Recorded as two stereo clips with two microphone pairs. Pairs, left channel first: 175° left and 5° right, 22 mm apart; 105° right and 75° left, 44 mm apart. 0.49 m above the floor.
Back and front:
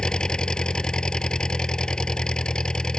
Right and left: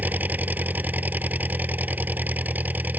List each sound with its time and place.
0.0 s an engine running: 125° left